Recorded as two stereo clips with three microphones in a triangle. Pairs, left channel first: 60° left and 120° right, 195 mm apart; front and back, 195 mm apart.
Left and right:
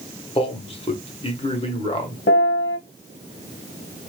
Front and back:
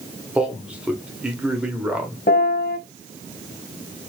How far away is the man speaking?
About 1.0 m.